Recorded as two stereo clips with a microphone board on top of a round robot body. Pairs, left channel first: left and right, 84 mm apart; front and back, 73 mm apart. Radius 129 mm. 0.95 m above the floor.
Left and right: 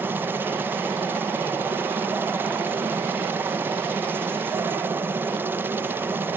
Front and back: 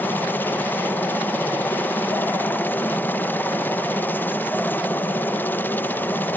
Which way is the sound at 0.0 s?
45° right.